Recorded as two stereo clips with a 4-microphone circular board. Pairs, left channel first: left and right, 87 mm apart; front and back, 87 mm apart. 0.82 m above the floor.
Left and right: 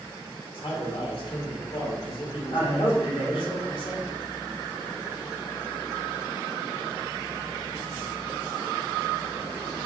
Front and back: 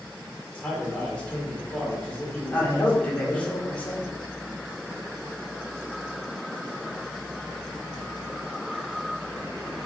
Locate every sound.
0.5 s a man speaking: 80° left, 3 m
2.5 s a man speaking: 75° left, 2 m